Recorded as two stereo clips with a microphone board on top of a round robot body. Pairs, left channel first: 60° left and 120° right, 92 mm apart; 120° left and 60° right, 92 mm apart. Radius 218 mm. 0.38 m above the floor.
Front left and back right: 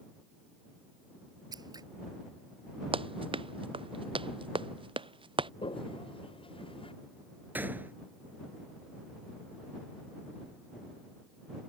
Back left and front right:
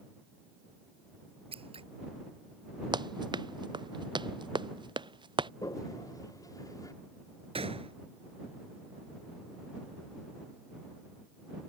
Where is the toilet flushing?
70° left.